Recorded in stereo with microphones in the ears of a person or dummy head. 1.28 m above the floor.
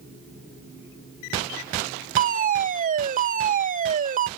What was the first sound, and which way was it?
A fire alarm, 35° right (ahead or behind).